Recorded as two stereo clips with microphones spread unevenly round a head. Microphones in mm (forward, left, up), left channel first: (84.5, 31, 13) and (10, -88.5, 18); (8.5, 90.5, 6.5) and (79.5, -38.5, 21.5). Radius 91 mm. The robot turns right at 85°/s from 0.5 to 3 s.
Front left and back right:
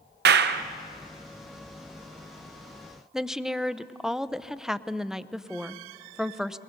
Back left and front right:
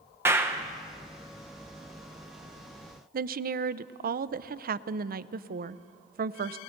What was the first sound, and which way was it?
A clap, 140° right.